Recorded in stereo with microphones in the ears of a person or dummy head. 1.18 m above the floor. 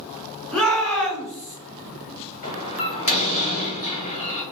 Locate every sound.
0.5 s a shout: 5° left (ahead or behind), 1.4 m
2.4 s a door slam: 40° left (ahead or behind), 1.3 m